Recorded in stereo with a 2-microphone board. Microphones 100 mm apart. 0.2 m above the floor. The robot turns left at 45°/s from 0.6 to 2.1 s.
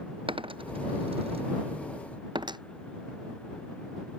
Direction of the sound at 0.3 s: 60° right (ahead or behind).